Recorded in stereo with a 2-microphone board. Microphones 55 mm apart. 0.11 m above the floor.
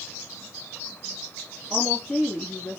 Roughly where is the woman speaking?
Centre.